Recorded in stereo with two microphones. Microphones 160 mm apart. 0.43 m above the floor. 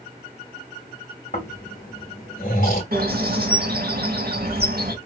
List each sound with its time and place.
1.3 s snoring: 60° left (ahead or behind), 1.8 m
2.9 s a bird: 75° right (ahead or behind), 1.1 m